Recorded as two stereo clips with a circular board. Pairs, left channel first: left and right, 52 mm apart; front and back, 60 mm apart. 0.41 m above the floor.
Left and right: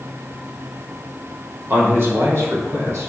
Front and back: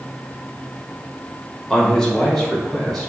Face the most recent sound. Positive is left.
turn(degrees=-85)